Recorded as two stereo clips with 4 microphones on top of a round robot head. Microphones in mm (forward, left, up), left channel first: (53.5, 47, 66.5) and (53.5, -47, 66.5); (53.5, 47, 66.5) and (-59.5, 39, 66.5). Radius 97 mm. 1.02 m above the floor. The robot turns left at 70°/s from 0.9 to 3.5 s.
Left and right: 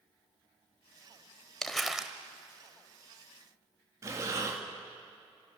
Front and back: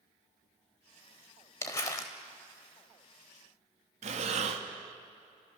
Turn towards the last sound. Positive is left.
turn(degrees=-155)